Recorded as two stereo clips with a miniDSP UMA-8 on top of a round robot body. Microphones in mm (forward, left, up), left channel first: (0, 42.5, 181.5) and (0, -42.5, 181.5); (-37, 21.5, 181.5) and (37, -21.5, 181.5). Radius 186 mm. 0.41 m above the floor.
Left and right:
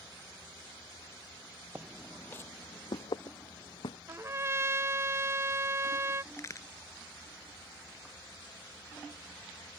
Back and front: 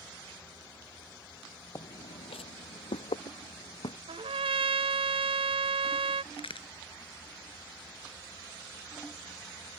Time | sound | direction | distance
1.8 | footsteps | 160° right | ?
4.1 | a trumpet | 30° right | ?
6.3 | a crack | 145° left | ?